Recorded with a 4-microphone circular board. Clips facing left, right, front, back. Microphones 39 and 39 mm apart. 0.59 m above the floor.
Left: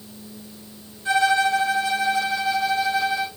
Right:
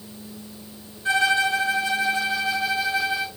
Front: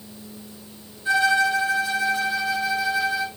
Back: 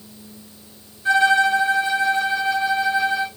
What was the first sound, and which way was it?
A violin, 150° right.